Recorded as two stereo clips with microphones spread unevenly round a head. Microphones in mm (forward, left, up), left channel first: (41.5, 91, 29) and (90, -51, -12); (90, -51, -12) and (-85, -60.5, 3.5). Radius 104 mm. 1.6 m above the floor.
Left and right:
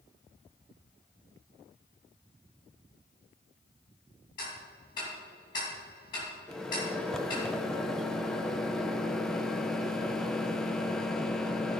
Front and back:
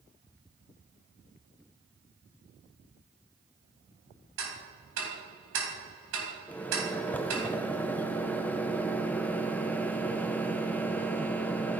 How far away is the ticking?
About 2.5 m.